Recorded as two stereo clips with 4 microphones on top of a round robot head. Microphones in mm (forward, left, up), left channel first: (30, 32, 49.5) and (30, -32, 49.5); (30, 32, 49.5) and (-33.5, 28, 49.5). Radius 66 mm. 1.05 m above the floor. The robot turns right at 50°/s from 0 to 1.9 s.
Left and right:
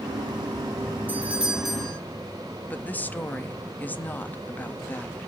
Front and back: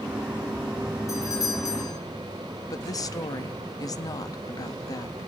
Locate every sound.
1.1 s a doorbell: 35° right, 3 m; by 2.0 s 5° left, 3 m
2.7 s a woman speaking: 25° left, 1.7 m